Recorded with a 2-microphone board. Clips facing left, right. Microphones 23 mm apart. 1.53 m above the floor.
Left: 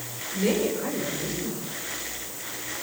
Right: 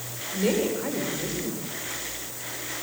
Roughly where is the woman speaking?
Centre.